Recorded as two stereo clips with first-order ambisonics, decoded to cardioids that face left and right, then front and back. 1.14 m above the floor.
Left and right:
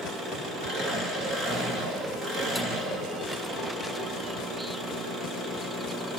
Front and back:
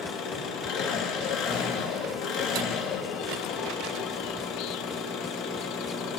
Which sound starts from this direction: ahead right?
An engine running, at 0.0 s.